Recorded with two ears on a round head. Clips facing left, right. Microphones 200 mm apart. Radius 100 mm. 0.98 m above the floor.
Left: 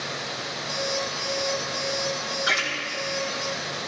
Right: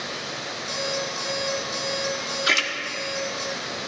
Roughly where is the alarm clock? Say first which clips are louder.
Even; right.